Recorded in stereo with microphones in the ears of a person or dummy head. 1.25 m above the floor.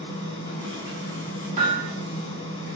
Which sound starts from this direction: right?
Hammering, at 1.6 s.